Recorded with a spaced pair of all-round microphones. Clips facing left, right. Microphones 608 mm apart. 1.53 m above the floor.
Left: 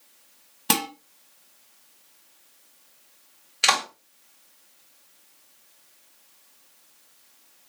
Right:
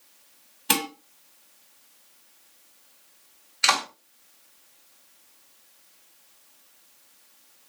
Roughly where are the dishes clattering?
Left.